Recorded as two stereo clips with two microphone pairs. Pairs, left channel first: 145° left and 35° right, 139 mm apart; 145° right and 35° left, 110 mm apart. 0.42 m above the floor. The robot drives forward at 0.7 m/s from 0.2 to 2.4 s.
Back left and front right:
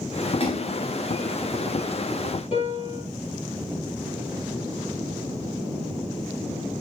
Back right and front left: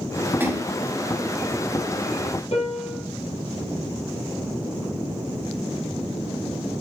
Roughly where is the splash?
Left.